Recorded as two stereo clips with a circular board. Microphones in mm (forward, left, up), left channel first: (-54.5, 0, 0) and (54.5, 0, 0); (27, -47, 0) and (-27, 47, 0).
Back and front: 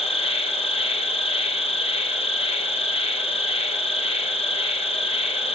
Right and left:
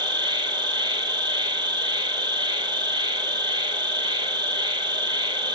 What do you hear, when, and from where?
0.0 s an insect: 165° left, 1.0 m